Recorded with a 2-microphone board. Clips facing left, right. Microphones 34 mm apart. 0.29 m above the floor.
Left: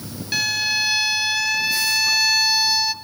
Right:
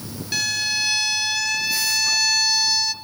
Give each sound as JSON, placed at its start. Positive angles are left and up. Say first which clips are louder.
{"t": 0.3, "sound": "a violin", "louder": "left 2 dB", "side_deg": 10, "distance_m": 0.8}